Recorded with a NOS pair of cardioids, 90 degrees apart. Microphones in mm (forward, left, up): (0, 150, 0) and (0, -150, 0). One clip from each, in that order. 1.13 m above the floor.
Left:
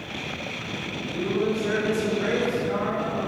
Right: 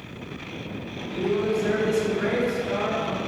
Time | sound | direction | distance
1.1 | a man speaking | 50° right | 1.3 m